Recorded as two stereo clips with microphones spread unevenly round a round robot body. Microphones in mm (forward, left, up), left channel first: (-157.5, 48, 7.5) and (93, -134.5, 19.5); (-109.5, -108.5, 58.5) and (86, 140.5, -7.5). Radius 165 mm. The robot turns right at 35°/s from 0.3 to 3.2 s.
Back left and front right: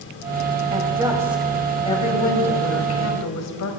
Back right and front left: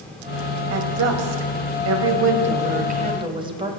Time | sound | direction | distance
0.7 | a woman speaking | 30° left | 2 m